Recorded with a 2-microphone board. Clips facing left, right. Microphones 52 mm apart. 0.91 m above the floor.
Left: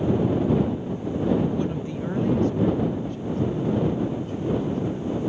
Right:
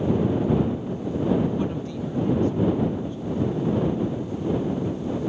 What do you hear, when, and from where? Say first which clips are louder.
1.5 s a woman speaking: even; 20° right (ahead or behind); by 5.2 s 80° left